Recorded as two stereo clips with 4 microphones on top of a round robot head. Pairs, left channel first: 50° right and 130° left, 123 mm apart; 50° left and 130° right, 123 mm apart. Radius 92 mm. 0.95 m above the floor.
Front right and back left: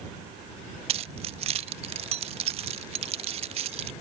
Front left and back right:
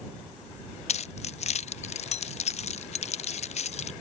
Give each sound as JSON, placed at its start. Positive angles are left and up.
{"t": 0.9, "sound": "keys jangling", "azimuth_deg": 85}